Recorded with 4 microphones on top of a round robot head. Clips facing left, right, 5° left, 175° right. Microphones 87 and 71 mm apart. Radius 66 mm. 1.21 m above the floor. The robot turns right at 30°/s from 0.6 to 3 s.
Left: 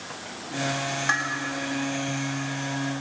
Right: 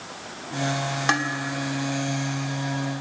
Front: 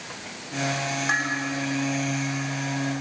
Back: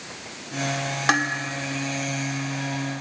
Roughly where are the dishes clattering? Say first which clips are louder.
Right 3 dB, back 5 dB; behind right.